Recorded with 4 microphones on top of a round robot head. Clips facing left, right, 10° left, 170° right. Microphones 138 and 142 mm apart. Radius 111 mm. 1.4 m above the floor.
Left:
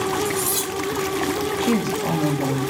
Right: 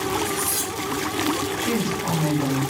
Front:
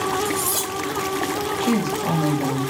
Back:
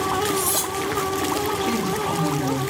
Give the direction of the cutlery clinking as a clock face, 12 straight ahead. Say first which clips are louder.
Left 3 dB, back 1 dB; 9 o'clock.